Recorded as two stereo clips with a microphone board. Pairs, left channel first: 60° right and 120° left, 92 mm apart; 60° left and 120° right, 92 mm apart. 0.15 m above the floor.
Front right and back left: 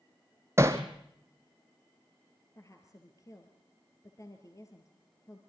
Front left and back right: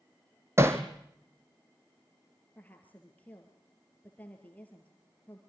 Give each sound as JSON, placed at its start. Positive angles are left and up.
{"t": 0.6, "sound": "hammering", "azimuth_deg": 180, "distance_m": 1.7}
{"t": 2.5, "sound": "a woman speaking", "azimuth_deg": -10, "distance_m": 3.0}